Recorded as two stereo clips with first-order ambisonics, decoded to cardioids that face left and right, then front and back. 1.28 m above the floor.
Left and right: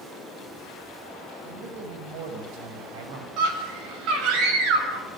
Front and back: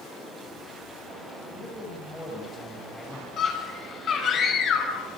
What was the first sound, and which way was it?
A man speaking, 80° right.